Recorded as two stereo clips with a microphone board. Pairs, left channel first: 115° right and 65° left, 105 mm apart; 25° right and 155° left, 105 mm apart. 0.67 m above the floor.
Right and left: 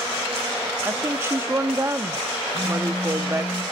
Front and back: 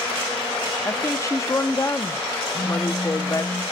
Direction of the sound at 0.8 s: 20° left.